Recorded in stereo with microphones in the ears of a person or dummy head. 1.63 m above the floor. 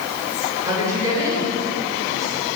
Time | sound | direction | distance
0.6 | a woman speaking | 15° right (ahead or behind) | 6.5 m